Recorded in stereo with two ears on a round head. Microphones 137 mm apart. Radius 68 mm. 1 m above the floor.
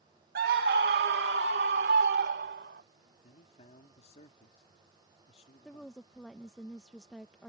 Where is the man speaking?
40° left (ahead or behind).